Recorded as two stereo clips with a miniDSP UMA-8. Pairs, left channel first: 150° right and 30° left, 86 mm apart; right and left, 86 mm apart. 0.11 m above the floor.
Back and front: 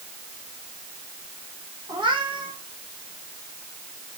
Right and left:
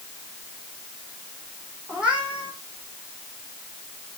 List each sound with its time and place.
1.9 s a cat meowing: 15° left, 4 m